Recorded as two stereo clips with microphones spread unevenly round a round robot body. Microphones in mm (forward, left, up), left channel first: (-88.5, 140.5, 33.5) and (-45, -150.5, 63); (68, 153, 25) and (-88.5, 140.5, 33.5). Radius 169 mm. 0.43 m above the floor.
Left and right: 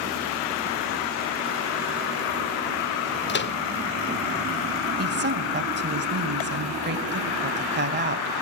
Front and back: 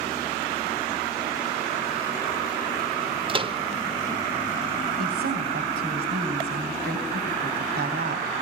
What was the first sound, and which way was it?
A microwave, 130° left.